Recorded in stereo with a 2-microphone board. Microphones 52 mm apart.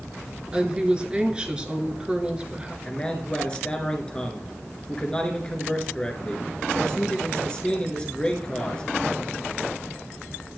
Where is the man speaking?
20° left (ahead or behind), 1.4 m.